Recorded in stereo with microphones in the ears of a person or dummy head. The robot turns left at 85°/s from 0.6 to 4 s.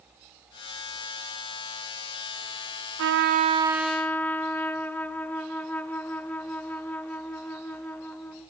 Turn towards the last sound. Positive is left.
turn(degrees=170)